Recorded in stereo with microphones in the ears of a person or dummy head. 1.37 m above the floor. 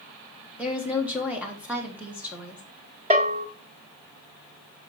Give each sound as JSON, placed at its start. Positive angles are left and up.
{"t": 0.6, "sound": "a woman speaking", "side_deg": -5, "distance_m": 1.4}
{"t": 3.1, "sound": "a bell", "side_deg": -35, "distance_m": 0.9}